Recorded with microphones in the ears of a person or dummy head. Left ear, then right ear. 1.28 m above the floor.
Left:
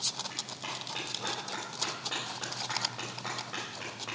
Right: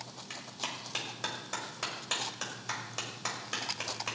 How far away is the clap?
About 5.5 m.